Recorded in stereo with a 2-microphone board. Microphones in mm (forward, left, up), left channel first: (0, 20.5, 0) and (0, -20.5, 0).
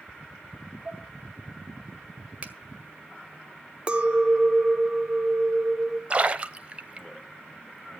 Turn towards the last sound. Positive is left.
turn(degrees=-35)  # may be behind; listen again after turning